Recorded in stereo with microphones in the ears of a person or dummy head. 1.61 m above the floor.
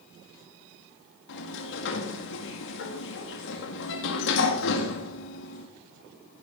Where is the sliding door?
65° left (ahead or behind), 2.0 m.